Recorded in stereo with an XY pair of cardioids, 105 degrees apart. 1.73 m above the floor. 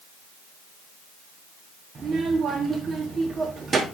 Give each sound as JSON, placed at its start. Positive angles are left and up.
{"t": 1.9, "sound": "a child speaking", "azimuth_deg": -40, "distance_m": 2.5}